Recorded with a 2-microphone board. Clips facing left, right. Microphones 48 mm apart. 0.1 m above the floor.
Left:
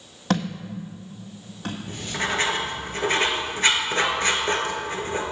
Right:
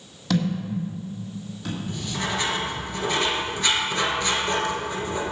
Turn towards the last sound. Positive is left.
turn(degrees=40)  # may be behind; listen again after turning